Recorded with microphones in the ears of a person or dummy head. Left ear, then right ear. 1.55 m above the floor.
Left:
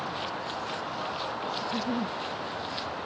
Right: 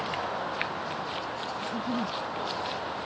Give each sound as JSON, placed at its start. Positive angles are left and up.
{"t": 1.6, "sound": "a giggle", "side_deg": 80}